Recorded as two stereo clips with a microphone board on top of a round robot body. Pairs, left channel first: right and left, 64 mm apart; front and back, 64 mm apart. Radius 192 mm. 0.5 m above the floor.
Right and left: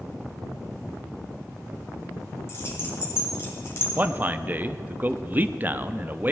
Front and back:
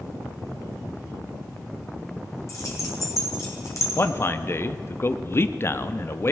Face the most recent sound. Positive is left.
turn(degrees=35)